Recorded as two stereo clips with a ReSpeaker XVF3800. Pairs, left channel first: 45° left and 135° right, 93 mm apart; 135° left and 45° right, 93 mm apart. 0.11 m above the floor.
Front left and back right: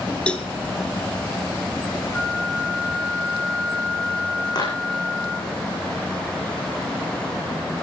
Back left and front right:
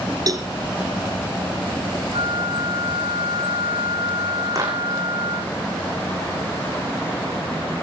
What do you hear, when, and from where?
0.3 s a cowbell: 25° right, 1.6 m
2.1 s a flute: 30° right, 7 m
4.5 s a clap: 5° left, 7 m